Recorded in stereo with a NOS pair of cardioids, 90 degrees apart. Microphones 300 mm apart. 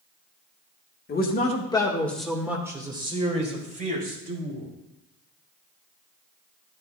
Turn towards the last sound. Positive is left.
turn(degrees=-30)